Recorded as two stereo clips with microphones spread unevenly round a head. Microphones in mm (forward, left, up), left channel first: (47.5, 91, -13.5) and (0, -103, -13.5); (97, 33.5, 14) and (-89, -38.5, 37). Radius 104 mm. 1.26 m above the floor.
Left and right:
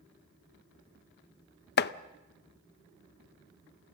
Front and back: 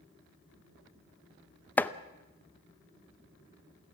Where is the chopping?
105° left, 0.6 m.